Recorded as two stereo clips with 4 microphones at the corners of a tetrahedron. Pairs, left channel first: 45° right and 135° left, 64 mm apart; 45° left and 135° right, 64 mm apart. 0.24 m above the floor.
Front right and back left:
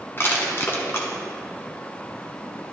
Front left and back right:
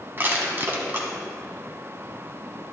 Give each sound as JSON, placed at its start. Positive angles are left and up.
{"t": 0.2, "sound": "crushing", "azimuth_deg": -90, "distance_m": 1.4}